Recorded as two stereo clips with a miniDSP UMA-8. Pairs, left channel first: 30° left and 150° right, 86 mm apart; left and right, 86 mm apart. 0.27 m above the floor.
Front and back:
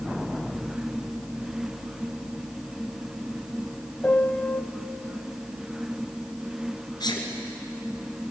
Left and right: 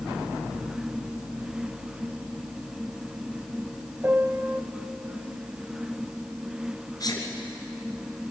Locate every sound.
4.0 s a piano: 35° right, 0.8 m
7.0 s a sneeze: 55° left, 2.5 m